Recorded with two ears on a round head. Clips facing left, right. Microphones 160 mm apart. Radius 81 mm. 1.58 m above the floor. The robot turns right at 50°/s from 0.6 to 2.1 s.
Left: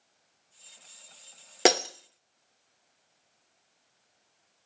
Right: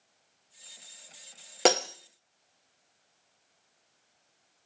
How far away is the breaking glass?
About 0.7 m.